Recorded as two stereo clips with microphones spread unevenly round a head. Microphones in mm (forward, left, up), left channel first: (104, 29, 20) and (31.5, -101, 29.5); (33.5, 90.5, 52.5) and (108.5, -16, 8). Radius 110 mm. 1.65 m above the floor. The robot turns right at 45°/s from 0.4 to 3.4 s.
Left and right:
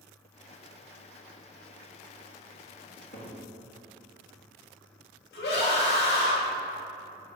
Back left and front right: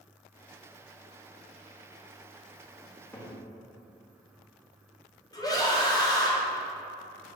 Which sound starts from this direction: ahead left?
A cupboard door, at 2.9 s.